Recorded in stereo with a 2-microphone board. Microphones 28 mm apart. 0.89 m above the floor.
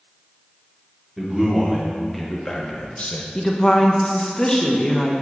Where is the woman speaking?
20° left (ahead or behind), 0.7 m.